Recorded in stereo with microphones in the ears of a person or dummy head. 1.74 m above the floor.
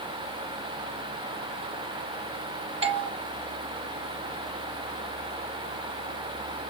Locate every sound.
2.8 s a doorbell: 30° right (ahead or behind), 0.6 m